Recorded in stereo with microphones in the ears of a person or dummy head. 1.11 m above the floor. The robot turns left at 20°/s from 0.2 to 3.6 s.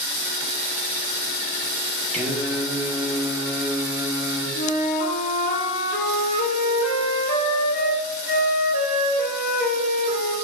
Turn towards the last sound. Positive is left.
turn(degrees=50)  # may be behind; listen again after turning